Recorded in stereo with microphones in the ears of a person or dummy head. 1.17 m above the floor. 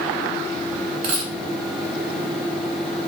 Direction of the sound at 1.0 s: 40° right (ahead or behind).